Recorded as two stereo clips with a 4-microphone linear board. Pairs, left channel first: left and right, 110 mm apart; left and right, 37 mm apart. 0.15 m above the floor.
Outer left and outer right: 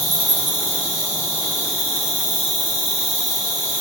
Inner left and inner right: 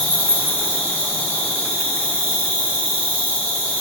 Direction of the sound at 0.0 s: 15° left (ahead or behind).